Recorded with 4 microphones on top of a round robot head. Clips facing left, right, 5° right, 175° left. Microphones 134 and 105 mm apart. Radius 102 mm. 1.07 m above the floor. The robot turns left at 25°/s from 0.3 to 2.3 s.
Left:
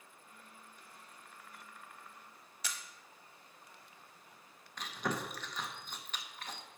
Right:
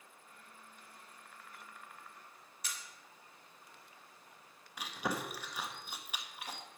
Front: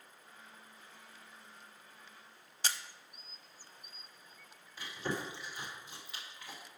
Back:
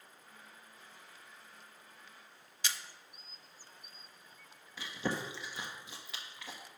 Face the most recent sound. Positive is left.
turn(degrees=-170)